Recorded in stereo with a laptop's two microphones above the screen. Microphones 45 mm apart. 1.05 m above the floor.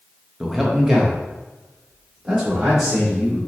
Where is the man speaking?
Centre (ahead or behind), 0.6 m; by 3.4 s 15° right (ahead or behind), 1.9 m.